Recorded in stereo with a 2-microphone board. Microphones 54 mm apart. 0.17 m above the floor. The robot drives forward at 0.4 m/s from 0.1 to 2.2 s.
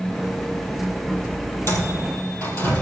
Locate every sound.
1.7 s a microwave: 40° left (ahead or behind), 4 m